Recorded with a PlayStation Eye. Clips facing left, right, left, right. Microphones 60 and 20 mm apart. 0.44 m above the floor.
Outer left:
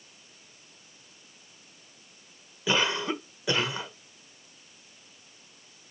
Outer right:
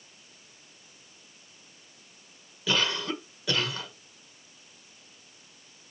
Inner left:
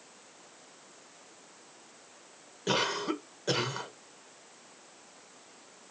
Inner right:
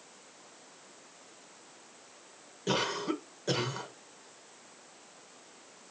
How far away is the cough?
About 1.2 m.